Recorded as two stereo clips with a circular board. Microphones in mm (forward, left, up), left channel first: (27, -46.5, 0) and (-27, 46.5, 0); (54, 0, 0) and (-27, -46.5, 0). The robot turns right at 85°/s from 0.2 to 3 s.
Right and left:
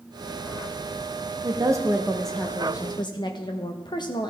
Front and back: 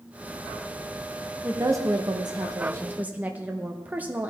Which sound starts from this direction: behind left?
A woman speaking, at 1.4 s.